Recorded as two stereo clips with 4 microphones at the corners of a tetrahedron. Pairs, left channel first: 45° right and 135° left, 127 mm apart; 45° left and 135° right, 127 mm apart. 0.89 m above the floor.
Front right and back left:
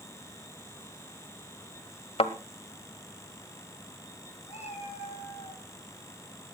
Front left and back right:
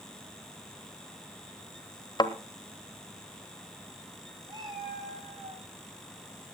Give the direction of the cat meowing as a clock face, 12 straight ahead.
3 o'clock.